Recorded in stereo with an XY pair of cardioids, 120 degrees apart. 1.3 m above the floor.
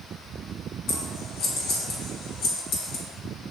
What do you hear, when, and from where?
0.9 s scissors: 70° left, 2.5 m